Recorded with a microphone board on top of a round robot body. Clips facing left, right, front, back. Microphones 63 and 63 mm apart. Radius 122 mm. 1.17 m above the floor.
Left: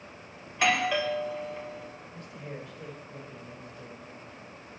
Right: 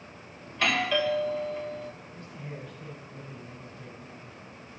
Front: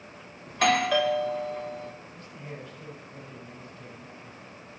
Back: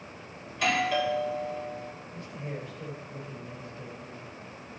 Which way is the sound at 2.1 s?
110° left.